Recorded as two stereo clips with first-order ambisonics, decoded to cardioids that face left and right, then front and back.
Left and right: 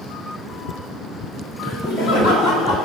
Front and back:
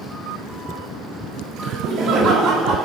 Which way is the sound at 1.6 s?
140° left.